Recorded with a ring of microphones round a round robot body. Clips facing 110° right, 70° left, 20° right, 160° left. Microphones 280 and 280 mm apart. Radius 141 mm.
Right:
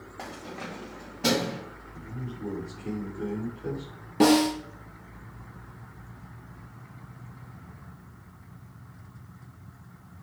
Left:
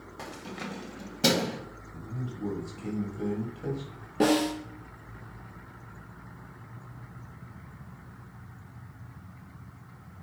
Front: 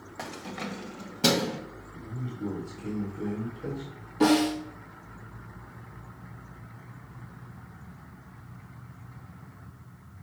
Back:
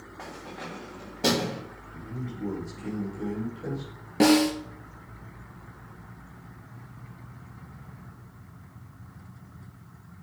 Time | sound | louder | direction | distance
0.2 | keys jangling | even, front 3 dB | 5° right | 1.4 m
1.9 | a man speaking | even, back 2 dB | 70° left | 2 m
4.2 | a snare drum | right 4 dB, back 2 dB | 170° left | 2.5 m